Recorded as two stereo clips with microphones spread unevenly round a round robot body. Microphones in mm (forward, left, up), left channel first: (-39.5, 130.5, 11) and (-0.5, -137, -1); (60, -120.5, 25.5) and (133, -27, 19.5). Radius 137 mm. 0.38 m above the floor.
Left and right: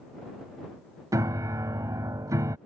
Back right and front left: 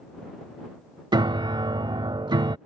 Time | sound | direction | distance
1.1 | a piano | 5° right | ?